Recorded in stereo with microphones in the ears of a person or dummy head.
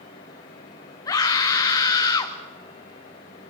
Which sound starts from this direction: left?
A scream, at 1.1 s.